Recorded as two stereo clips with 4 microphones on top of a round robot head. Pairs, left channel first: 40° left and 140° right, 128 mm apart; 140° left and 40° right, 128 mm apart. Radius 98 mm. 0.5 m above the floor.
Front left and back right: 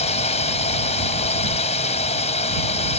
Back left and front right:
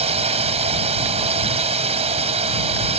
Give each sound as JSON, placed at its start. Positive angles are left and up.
{"t": 0.0, "sound": "a drone", "azimuth_deg": 0}